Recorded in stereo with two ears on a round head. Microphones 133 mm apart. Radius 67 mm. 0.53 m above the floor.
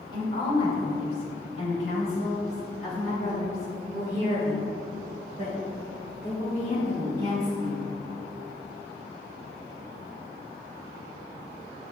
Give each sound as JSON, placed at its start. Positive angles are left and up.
{"t": 0.1, "sound": "a woman speaking", "side_deg": 35, "distance_m": 2.0}